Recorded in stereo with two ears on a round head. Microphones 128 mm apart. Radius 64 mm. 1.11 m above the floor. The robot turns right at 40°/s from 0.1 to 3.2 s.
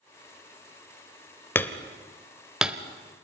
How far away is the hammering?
About 0.9 m.